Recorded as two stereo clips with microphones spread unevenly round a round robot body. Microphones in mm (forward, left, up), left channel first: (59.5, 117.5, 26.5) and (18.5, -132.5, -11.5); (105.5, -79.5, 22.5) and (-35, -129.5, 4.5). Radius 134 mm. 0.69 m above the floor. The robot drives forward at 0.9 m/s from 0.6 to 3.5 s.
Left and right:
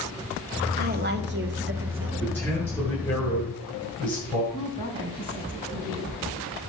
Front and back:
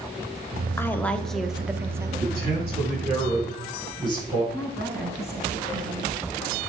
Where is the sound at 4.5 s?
170° right, 4 m.